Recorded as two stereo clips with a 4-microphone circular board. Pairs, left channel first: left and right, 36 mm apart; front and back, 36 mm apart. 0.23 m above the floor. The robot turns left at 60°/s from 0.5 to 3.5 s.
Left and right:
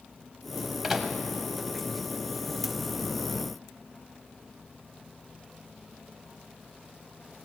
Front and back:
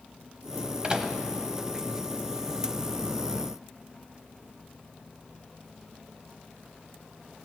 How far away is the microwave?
About 1.0 m.